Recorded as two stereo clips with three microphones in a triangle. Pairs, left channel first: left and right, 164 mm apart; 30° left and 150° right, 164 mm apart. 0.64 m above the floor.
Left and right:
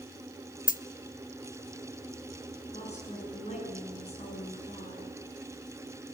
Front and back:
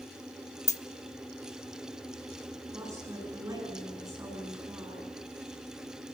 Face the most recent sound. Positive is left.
turn(degrees=140)